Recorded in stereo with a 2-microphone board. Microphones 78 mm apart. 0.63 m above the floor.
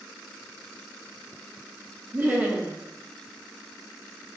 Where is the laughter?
25° right (ahead or behind), 1.0 m.